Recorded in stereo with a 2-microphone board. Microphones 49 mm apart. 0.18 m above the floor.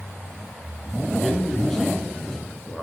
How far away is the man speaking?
About 2 m.